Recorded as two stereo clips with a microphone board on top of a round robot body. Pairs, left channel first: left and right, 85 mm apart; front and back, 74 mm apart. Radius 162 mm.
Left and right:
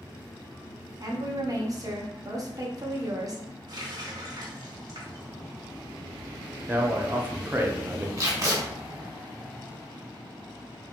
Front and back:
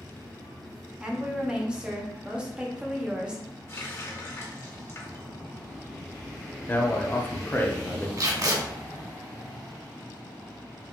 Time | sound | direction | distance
1.0 | a woman speaking | 105° right | 1.5 m
3.7 | a running tap | 50° right | 1.7 m
6.7 | a man speaking | 45° right | 1.1 m
8.2 | tape being pulled | 140° right | 2.5 m